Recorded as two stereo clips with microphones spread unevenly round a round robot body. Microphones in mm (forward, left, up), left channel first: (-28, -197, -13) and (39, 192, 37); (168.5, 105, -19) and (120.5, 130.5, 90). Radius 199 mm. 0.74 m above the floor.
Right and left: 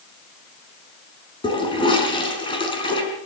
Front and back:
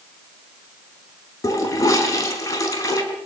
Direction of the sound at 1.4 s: 20° right.